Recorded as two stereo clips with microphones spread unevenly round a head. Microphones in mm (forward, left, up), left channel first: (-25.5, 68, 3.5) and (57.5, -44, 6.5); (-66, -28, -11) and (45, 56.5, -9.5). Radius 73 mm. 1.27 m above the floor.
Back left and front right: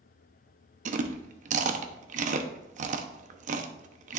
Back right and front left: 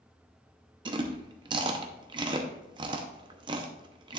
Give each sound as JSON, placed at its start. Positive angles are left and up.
{"t": 0.8, "sound": "chewing", "azimuth_deg": -25, "distance_m": 0.7}